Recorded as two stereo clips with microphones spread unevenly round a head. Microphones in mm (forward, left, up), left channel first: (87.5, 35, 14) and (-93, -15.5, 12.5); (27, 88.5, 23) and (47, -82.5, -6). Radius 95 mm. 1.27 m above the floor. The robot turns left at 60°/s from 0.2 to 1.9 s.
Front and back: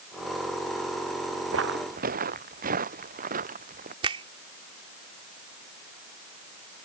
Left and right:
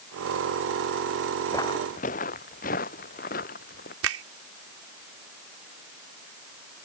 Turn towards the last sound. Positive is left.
turn(degrees=-100)